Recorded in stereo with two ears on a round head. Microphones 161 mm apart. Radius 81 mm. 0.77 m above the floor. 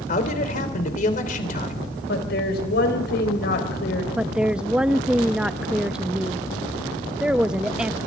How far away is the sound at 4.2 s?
About 0.5 m.